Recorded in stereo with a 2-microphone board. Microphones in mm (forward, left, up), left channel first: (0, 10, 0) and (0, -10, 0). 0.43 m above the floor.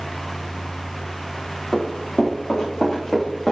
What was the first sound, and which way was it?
Running footsteps, 15° left (ahead or behind).